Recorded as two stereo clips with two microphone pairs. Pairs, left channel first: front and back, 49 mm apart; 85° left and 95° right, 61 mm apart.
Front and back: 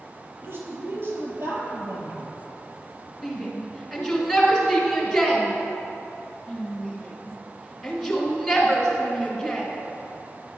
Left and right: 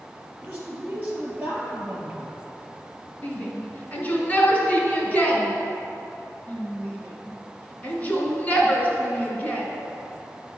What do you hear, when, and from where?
0.4 s a woman speaking: 155° right, 2.5 m
3.2 s a shout: 100° left, 1.5 m